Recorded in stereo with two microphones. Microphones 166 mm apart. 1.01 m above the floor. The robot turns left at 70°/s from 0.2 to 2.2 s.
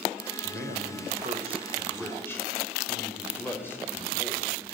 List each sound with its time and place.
0.4 s a man speaking: 70° right, 4.5 m; by 4.5 s 165° left, 4.5 m